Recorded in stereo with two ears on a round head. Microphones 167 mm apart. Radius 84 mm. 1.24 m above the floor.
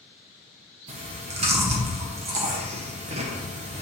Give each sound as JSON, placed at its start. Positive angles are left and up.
{"t": 0.9, "sound": "chewing", "side_deg": -35, "distance_m": 1.2}